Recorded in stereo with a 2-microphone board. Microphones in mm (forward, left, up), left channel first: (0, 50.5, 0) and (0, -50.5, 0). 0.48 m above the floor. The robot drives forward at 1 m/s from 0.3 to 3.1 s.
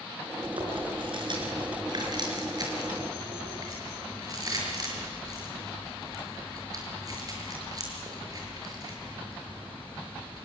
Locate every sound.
0.4 s chewing: 60° right (ahead or behind), 4.5 m; by 10.5 s 35° right (ahead or behind), 6 m